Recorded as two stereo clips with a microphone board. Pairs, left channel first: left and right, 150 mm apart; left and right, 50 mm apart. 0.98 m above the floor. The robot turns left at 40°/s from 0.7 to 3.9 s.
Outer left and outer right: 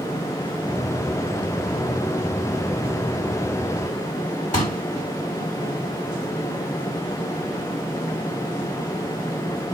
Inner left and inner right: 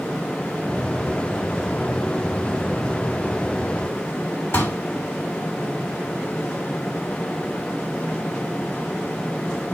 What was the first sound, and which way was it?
A pop, 50° left (ahead or behind).